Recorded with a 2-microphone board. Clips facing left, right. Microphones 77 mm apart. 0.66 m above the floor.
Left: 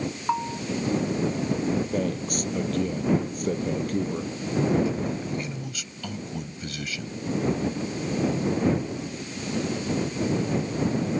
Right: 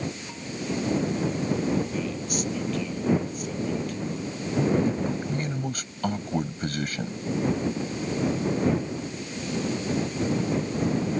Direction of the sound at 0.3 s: 65° left (ahead or behind).